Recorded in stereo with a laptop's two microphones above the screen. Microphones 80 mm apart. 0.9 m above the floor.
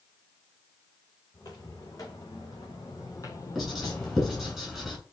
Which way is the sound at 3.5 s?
5° left (ahead or behind).